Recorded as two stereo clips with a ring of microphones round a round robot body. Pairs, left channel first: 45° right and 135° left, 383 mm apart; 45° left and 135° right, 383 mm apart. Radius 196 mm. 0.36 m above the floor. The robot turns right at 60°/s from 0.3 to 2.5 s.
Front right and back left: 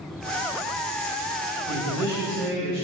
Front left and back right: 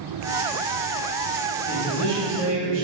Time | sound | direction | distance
1.7 | a man speaking | 120° left | 1.6 m